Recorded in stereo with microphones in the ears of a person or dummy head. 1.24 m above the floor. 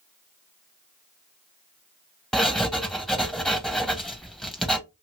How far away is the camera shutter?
I don't hear a camera shutter.